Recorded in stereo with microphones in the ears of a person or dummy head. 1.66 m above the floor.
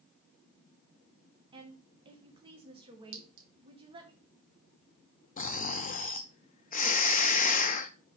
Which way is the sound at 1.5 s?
25° right (ahead or behind).